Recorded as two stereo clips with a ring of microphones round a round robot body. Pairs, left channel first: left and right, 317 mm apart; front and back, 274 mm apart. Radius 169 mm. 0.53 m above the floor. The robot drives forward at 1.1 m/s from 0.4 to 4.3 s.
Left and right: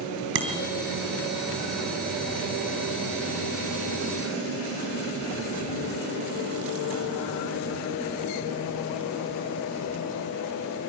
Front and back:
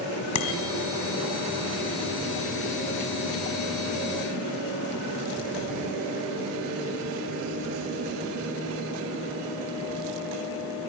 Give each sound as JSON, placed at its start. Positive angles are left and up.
{"t": 0.3, "sound": "a bicycle bell", "azimuth_deg": -35, "distance_m": 3.5}